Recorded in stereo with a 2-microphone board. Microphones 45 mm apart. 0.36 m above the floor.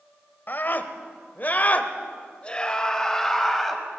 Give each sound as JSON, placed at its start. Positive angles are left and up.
{"t": 0.5, "sound": "a scream", "side_deg": 45, "distance_m": 1.7}